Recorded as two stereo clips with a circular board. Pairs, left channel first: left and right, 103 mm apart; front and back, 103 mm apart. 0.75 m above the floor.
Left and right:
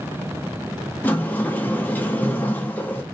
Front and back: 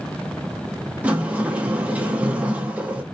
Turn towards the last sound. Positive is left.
turn(degrees=125)